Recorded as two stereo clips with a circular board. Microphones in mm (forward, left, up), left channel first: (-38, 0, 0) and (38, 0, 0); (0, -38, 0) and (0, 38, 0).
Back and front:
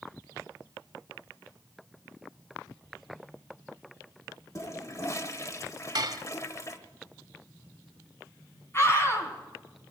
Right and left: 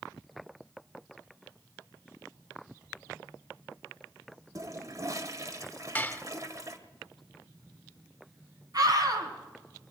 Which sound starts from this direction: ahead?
Dishes clattering, at 6.0 s.